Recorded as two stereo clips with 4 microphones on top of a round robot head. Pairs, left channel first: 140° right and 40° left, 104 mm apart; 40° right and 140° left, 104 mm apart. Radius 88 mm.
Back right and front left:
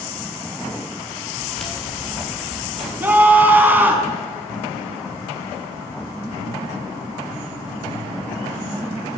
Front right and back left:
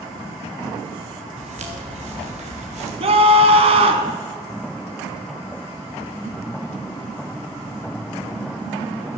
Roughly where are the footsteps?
Behind left.